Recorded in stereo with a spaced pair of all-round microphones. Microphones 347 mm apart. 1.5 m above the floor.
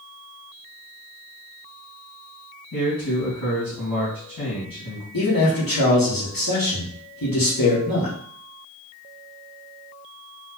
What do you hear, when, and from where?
2.7 s a man speaking: 80° left, 2.5 m
5.1 s a man speaking: 75° left (ahead or behind), 1.6 m